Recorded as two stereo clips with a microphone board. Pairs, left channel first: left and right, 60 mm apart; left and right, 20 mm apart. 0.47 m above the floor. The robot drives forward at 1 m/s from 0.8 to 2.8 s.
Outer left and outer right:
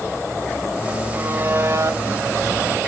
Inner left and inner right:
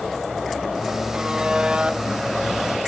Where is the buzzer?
35° right (ahead or behind), 1.3 m; by 2.0 s 75° right (ahead or behind), 0.8 m.